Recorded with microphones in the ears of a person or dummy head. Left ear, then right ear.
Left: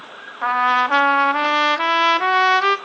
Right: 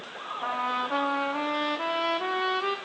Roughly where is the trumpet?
Left.